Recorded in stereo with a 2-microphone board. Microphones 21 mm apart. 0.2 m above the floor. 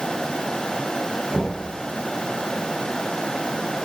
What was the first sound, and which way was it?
Knocking, 40° right (ahead or behind).